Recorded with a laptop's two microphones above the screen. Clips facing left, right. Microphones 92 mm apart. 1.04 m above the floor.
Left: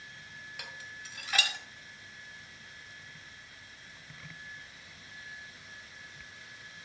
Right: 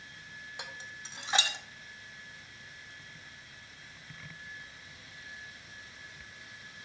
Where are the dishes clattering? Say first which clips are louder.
Right 2 dB; 25° right (ahead or behind), 1.0 m.